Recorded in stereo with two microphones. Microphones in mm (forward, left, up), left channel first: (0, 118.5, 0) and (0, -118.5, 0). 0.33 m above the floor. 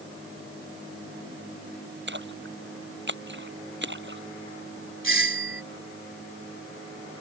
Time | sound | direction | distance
2.1 | a splash | 50° right (ahead or behind) | ?
5.0 | a doorbell | 55° right (ahead or behind) | ?